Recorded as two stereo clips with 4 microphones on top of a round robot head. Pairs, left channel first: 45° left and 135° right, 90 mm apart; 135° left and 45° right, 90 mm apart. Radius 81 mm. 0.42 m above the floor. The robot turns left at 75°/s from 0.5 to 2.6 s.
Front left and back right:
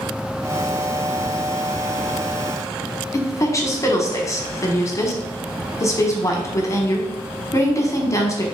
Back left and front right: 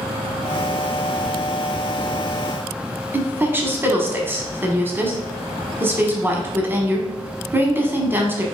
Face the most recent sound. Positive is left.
turn(degrees=10)